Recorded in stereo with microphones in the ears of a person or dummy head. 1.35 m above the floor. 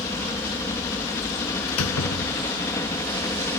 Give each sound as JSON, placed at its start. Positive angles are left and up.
{"t": 0.0, "sound": "a helicopter", "side_deg": 15}
{"t": 1.7, "sound": "a door slam", "side_deg": 90}